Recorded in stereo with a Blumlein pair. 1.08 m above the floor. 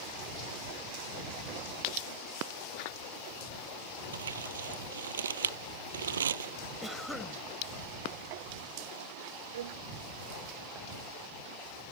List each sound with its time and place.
4.1 s crumpling: 70° right
6.8 s a cough: 5° left
9.5 s a violin: 60° right